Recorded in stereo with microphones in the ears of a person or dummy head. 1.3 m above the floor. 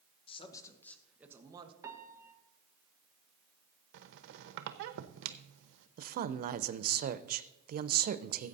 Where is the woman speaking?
45° right (ahead or behind), 0.6 m.